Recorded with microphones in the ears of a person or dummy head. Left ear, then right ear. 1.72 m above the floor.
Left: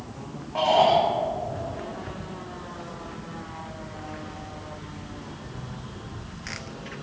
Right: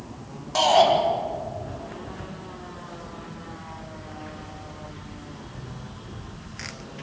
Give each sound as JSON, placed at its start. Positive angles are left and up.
{"t": 0.6, "sound": "a shout", "side_deg": -85, "distance_m": 6.0}